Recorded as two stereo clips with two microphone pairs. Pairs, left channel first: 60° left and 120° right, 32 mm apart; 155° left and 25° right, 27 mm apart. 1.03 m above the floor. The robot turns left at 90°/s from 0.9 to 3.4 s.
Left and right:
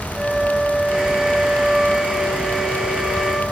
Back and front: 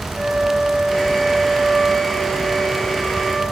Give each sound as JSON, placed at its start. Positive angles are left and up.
{"t": 0.1, "sound": "a flute", "azimuth_deg": -60, "distance_m": 1.1}